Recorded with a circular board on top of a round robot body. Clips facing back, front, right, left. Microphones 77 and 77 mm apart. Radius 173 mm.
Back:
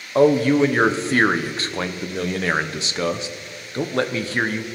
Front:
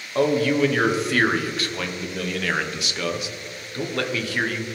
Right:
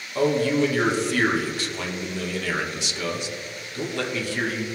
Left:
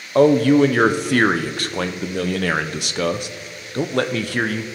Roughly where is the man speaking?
Behind left.